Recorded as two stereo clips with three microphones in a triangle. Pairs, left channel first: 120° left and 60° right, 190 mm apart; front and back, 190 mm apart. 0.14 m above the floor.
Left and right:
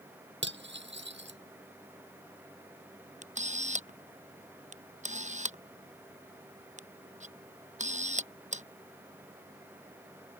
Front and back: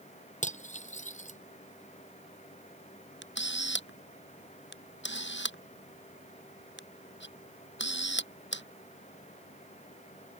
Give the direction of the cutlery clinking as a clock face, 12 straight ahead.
2 o'clock.